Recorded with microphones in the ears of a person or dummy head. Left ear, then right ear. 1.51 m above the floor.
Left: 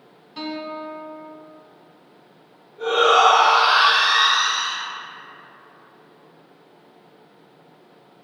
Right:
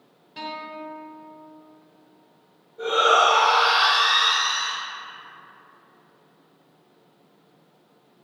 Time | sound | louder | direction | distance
0.4 | a guitar | left 3 dB | 5° right (ahead or behind) | 0.8 m
2.8 | a shout | left 3 dB | 50° right (ahead or behind) | 1.8 m